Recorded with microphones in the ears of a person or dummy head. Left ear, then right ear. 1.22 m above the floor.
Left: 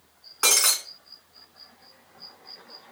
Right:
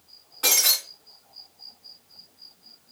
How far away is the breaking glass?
About 3 m.